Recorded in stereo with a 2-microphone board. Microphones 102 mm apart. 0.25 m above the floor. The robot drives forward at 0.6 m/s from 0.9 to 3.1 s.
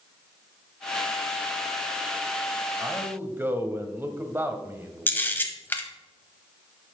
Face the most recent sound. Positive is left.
turn(degrees=15)  # may be behind; listen again after turning